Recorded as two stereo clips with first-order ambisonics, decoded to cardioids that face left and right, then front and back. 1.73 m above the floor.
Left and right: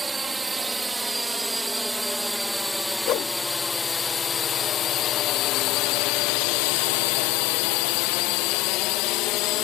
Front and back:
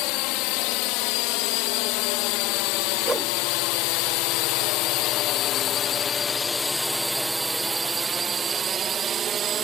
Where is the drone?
15° right; by 9.6 s 120° left.